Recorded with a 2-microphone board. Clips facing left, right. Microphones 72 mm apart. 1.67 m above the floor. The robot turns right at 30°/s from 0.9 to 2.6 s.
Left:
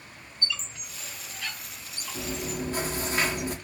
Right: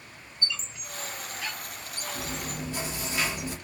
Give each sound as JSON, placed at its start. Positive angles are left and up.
{"t": 0.4, "sound": "a squeak", "side_deg": -20, "distance_m": 1.6}
{"t": 2.1, "sound": "chewing", "side_deg": 30, "distance_m": 0.9}